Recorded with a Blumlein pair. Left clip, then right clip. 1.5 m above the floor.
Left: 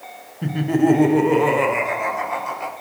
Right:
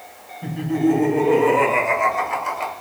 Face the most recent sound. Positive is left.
turn(degrees=-25)